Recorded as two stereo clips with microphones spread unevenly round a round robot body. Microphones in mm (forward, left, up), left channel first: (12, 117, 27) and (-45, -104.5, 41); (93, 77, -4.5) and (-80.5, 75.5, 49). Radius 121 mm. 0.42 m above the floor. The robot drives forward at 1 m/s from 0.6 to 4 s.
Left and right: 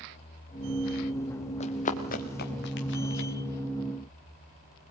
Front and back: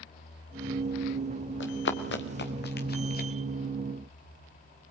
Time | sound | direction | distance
1.6 | running footsteps | 10° left | 3.5 m